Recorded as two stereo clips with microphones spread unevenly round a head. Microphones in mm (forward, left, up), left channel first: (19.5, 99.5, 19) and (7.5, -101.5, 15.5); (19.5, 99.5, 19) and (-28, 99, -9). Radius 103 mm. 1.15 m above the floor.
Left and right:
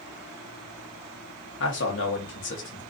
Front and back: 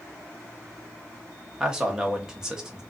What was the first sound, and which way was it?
A man speaking, 115° left.